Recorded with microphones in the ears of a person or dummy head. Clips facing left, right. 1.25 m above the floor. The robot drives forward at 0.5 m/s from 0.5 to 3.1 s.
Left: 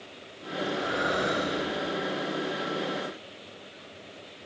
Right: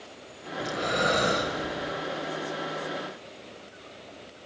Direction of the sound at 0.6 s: 50° right (ahead or behind).